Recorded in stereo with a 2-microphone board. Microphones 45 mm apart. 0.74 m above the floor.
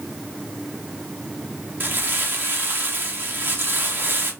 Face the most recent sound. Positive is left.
turn(degrees=-45)  # may be behind; listen again after turning